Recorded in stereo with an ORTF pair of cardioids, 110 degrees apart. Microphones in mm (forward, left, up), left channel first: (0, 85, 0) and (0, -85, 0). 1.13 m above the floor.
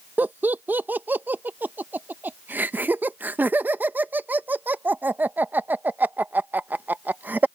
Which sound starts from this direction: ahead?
Laughter, at 0.2 s.